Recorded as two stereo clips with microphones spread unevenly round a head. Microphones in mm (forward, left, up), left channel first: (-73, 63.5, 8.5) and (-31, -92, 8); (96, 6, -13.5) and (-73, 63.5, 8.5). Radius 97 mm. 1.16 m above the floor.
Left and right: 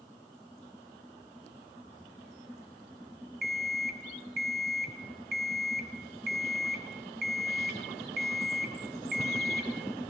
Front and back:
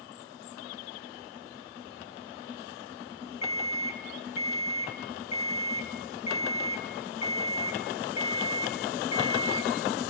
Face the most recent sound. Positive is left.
turn(degrees=-80)